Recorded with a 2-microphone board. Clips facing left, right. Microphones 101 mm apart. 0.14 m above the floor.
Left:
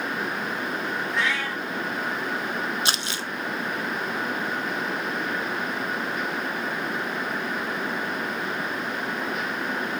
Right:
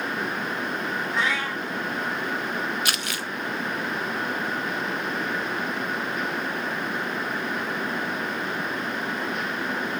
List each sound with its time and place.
1.1 s a cat meowing: 25° right (ahead or behind), 2.5 m
2.9 s crumpling: 25° left (ahead or behind), 0.5 m